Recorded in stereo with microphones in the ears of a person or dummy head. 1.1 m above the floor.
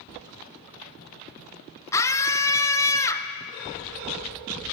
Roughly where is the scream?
Centre.